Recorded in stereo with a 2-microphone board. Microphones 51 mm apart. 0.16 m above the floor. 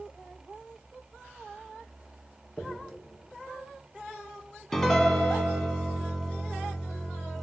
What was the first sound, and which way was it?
A dropped coin, 50° left (ahead or behind).